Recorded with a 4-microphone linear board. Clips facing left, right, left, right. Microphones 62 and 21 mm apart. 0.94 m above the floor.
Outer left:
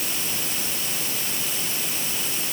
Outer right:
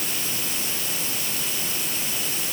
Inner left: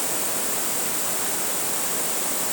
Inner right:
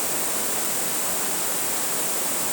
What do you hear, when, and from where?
Only background noise.